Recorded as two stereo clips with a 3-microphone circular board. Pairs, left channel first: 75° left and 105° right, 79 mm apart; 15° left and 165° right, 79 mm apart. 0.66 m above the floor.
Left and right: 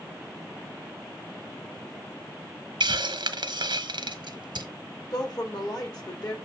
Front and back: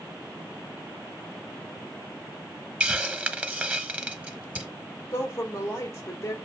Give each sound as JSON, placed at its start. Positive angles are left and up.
{"t": 2.8, "sound": "a hiss", "azimuth_deg": -95, "distance_m": 0.8}
{"t": 5.1, "sound": "a woman speaking", "azimuth_deg": 65, "distance_m": 1.9}